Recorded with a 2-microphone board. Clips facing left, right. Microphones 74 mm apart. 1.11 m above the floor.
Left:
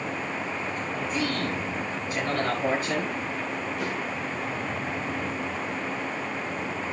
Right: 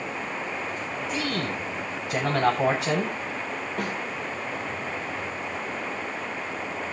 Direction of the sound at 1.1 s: 85° right.